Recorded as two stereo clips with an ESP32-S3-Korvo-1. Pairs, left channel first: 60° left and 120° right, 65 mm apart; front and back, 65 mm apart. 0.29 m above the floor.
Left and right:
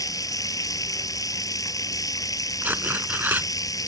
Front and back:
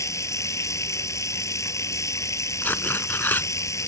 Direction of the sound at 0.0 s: 40° left.